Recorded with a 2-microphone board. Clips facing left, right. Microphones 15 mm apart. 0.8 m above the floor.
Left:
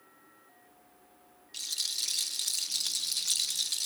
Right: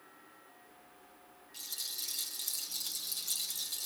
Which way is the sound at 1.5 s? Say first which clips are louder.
Left 8 dB; 45° left (ahead or behind).